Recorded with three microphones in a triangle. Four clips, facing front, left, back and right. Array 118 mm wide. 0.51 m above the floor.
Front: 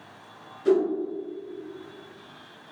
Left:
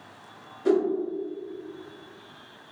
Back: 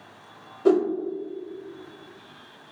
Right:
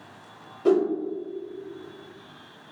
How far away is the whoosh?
About 0.8 m.